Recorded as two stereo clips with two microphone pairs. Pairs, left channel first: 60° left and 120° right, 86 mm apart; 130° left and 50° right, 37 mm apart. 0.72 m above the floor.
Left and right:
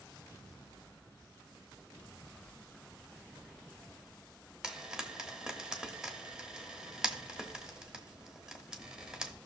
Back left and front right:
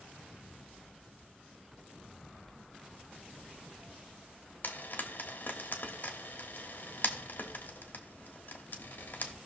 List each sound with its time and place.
4.6 s frying: 160° left, 1.2 m